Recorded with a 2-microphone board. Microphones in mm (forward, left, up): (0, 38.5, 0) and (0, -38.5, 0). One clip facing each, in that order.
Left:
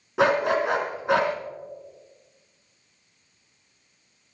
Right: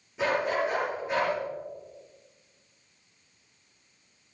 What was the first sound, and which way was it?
A dog barking, 80° left.